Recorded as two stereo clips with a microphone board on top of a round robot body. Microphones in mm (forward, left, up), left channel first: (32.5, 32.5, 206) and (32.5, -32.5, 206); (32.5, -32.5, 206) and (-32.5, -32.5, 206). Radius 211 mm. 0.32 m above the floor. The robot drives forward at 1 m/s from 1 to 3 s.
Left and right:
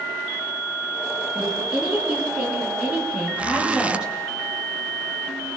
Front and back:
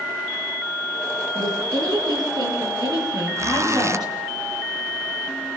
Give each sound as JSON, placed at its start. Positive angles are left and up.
{"t": 1.4, "sound": "a woman speaking", "azimuth_deg": -165, "distance_m": 8.5}
{"t": 3.4, "sound": "a zipper", "azimuth_deg": -155, "distance_m": 1.1}